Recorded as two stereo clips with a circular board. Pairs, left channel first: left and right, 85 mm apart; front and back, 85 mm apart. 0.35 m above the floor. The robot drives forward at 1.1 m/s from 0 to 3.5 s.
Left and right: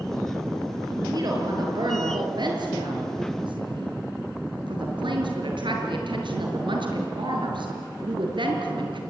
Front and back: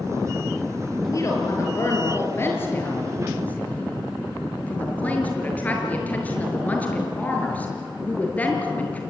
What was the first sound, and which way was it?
A woman speaking, 50° right.